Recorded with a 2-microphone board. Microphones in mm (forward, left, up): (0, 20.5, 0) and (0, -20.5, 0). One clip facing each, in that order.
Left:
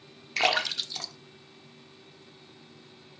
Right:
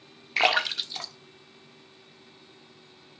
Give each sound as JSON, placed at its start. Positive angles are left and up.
{"t": 0.4, "sound": "a splash", "side_deg": -15, "distance_m": 1.4}